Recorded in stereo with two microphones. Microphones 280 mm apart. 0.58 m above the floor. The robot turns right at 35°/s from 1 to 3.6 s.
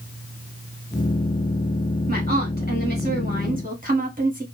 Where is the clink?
No clink in this recording.